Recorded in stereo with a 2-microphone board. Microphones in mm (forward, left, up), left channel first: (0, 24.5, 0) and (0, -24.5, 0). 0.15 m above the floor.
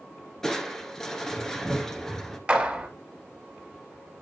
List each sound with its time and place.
0.4 s crushing: 10° left (ahead or behind), 1.2 m
2.5 s a clap: 20° right (ahead or behind), 2.5 m